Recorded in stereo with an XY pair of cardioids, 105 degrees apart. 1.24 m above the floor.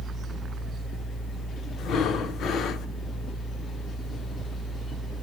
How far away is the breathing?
About 0.7 m.